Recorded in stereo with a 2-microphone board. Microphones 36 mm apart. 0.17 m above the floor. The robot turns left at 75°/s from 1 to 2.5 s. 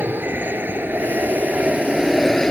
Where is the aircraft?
85° right; by 2.5 s 160° left.